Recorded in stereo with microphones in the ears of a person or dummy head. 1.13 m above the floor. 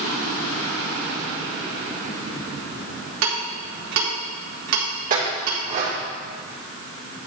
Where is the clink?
45° right (ahead or behind), 2.5 m.